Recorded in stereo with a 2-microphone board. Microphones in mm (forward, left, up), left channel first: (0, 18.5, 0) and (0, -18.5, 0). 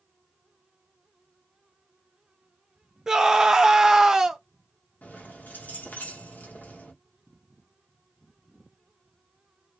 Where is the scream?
15° right (ahead or behind), 0.6 m.